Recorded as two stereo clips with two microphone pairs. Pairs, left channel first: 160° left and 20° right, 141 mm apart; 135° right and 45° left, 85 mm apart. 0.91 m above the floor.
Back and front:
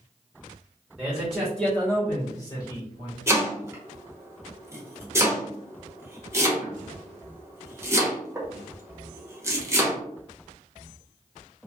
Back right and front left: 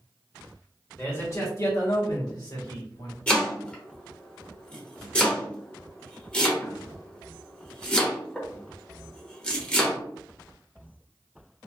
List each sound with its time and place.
1.0 s a man speaking: 95° right, 1.2 m; by 3.2 s 155° right, 1.6 m
3.3 s chopping: 75° right, 0.9 m